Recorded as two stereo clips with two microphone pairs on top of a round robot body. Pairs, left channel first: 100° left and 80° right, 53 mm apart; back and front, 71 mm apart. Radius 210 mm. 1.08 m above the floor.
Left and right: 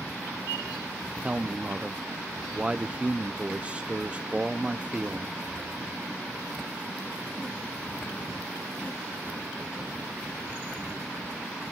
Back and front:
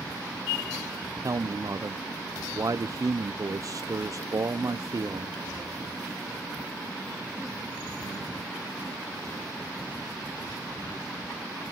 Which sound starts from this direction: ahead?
A man speaking, at 1.2 s.